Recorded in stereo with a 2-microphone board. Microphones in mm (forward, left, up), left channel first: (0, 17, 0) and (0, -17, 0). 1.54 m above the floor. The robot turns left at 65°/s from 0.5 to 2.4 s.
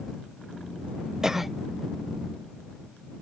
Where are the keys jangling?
No keys jangling in this recording.